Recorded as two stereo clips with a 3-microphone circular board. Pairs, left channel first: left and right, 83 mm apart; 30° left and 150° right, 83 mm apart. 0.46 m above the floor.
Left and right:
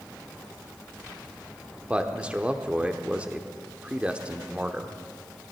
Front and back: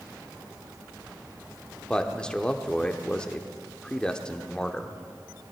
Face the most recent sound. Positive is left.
turn(degrees=-35)